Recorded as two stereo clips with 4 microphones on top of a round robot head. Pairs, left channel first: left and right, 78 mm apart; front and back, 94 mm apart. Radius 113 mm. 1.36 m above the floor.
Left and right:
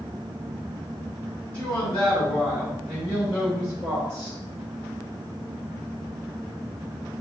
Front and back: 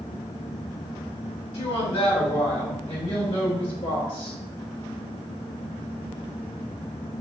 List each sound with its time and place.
1.5 s a woman speaking: 25° left, 1.6 m; by 4.4 s 25° right, 2 m